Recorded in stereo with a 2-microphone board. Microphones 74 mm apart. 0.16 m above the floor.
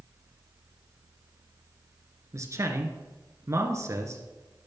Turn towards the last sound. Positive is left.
turn(degrees=-40)  # may be behind; listen again after turning